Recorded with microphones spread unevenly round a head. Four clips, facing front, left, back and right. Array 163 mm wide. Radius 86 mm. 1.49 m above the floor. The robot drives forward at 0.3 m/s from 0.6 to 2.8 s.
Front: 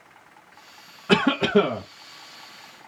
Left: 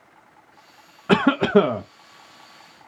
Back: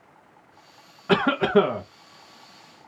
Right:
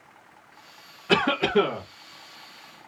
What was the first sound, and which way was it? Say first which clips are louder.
A cough: left 5 dB, even; 75° left.